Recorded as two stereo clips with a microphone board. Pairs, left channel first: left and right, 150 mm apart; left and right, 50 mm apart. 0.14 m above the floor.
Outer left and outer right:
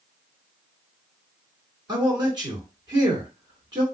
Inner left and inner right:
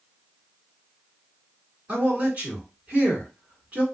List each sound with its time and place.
1.9 s a man speaking: 30° right (ahead or behind), 1.9 m